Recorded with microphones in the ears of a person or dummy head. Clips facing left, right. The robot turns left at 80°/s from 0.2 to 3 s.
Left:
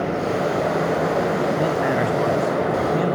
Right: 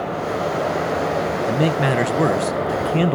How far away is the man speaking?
About 0.6 m.